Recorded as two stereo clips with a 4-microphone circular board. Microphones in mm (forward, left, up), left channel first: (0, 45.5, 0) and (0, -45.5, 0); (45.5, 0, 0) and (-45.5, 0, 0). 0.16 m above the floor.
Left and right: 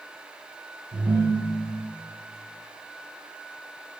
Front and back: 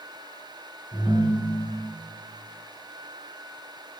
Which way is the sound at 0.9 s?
70° right.